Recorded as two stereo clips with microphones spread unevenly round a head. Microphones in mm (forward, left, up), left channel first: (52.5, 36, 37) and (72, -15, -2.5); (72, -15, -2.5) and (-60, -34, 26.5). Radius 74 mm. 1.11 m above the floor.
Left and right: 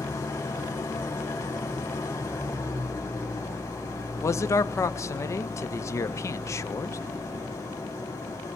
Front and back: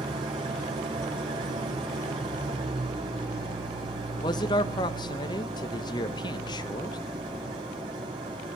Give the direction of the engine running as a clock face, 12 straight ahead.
7 o'clock.